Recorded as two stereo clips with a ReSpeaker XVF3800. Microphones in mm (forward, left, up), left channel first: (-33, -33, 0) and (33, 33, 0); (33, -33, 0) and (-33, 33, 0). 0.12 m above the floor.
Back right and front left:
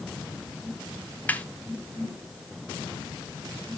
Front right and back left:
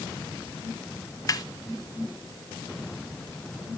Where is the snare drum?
70° right, 0.6 m.